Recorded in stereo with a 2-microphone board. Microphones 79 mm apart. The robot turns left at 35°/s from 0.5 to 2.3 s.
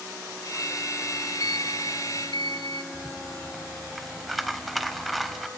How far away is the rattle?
About 1.0 m.